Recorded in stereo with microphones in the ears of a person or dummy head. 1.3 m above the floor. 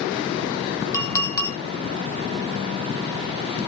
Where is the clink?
20° left (ahead or behind), 1.0 m.